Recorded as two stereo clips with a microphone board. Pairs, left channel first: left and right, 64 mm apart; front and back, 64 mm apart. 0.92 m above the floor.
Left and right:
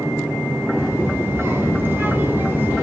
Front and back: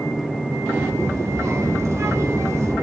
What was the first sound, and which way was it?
A child speaking, 145° right.